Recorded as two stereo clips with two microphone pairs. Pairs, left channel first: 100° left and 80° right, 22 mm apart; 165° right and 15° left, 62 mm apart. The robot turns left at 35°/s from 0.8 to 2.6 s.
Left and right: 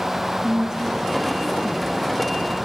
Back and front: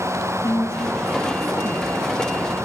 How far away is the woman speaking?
About 1.2 m.